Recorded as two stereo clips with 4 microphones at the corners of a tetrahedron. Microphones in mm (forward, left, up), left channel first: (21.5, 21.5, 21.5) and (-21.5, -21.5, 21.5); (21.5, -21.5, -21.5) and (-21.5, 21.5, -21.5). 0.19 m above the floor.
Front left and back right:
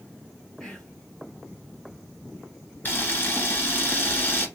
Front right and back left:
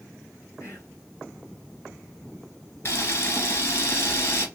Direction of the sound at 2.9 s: 5° right.